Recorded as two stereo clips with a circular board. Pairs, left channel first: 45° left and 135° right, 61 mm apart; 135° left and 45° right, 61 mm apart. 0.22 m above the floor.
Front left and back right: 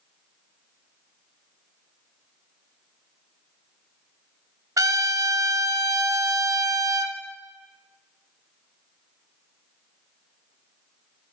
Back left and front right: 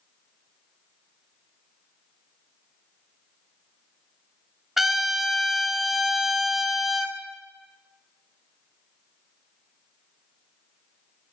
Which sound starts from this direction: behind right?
A trumpet, at 4.8 s.